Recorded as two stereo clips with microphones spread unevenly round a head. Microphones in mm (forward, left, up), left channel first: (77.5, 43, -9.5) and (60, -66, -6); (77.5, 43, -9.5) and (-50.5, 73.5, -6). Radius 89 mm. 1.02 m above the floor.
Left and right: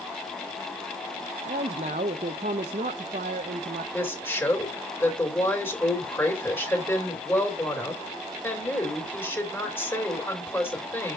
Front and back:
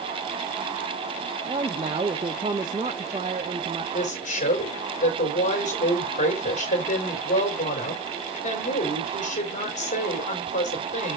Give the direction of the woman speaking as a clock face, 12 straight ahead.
12 o'clock.